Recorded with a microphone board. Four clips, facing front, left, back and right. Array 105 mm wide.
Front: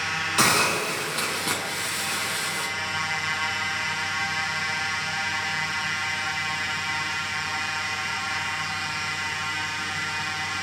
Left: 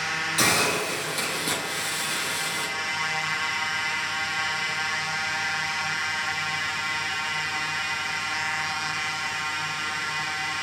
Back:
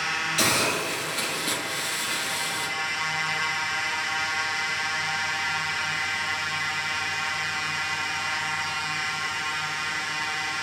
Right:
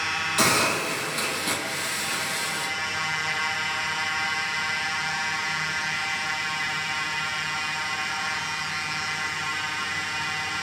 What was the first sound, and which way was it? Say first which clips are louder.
A hiss: right 1 dB, front 4 dB; 15° right.